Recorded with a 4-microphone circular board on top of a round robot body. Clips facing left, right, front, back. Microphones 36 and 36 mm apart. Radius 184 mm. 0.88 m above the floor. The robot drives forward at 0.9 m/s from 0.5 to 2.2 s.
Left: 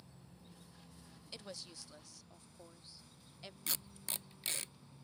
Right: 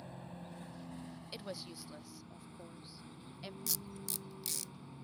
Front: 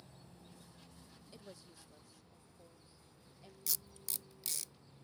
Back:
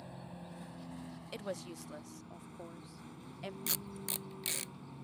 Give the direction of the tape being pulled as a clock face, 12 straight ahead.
7 o'clock.